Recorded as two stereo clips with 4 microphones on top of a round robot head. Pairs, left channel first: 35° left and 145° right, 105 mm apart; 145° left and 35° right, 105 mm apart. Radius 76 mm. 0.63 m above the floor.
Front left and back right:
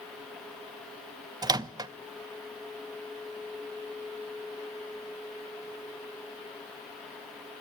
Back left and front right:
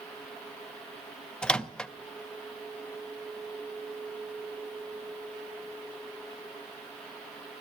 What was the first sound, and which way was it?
A microwave, 140° right.